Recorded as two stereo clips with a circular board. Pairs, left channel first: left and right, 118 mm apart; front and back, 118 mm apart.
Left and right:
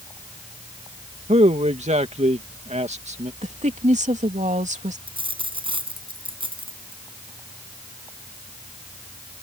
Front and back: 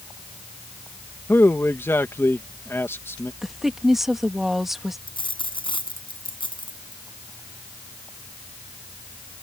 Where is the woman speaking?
95° right.